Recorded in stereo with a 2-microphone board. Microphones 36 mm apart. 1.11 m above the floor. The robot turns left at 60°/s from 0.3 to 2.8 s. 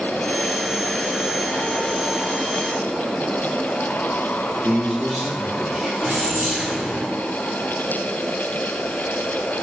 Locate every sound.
4.6 s a man speaking: 25° right (ahead or behind), 1.4 m
6.0 s keys jangling: 40° right (ahead or behind), 2 m